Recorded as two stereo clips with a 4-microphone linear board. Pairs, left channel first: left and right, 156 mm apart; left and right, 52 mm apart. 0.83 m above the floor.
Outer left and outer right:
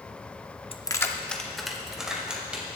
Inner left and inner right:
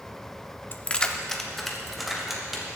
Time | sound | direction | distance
0.7 | keys jangling | 35° left (ahead or behind) | 0.6 m